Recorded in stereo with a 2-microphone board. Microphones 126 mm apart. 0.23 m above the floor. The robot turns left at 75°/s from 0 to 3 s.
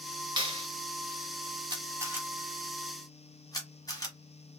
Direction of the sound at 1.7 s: 35° right (ahead or behind).